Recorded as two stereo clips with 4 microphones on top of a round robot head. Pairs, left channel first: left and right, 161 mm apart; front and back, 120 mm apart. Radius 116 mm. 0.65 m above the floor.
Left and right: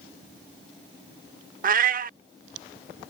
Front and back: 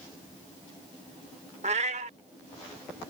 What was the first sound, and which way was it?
A cat meowing, 125° right.